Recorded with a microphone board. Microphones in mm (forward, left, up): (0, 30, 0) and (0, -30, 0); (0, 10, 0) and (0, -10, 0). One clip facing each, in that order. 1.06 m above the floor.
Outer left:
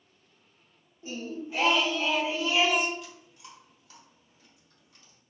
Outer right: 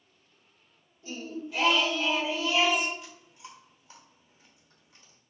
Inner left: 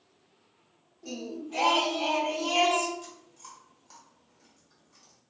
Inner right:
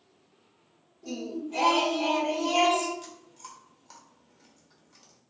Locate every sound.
1.0 s singing: 25° left (ahead or behind), 0.9 m
3.0 s chewing: 25° right (ahead or behind), 0.8 m